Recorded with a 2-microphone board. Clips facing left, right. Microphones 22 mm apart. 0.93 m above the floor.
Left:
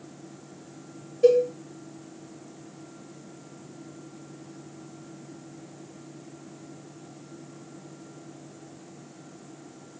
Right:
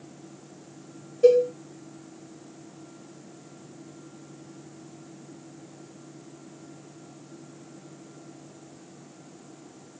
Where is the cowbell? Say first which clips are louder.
Right 1 dB; 5° left (ahead or behind), 1.2 m.